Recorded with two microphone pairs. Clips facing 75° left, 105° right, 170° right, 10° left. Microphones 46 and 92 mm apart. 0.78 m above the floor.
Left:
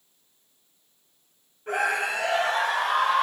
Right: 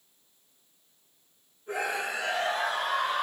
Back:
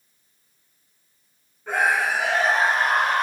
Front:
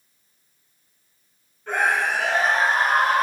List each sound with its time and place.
1.7 s a scream: 105° left, 5.5 m; by 3.2 s 95° left, 5.5 m